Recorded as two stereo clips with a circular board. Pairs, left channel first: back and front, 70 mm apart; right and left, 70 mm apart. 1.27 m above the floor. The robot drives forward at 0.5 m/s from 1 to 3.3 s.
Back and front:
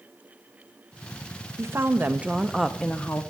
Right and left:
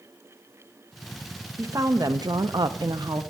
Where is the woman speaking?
50° left, 0.8 m; by 3.2 s 120° left, 0.7 m.